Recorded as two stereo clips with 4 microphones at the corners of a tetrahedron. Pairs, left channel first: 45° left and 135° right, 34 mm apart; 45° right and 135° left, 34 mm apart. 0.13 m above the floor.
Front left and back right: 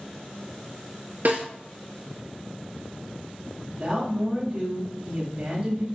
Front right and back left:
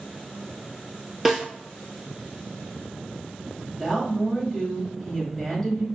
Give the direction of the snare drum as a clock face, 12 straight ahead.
5 o'clock.